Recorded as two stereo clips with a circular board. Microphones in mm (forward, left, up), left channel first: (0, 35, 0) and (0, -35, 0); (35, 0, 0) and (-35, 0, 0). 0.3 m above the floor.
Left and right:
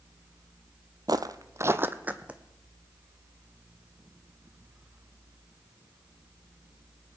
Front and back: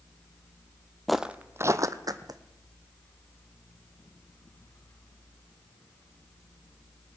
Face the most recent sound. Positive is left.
turn(degrees=-165)